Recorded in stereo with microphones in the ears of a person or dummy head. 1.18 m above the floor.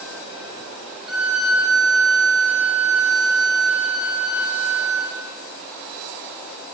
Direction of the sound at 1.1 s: Centre (ahead or behind).